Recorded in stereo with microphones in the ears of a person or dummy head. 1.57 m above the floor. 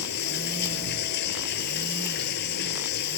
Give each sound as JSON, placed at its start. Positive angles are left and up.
{"t": 0.0, "sound": "running water", "side_deg": 55}